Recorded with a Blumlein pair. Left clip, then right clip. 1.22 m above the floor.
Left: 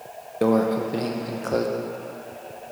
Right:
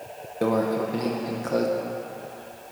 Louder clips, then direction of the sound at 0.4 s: Left 2 dB; 10° left.